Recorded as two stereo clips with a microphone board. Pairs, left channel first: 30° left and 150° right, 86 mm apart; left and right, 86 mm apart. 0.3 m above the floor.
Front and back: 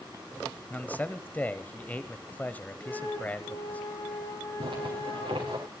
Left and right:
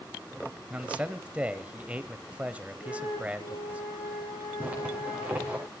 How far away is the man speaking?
About 1.2 m.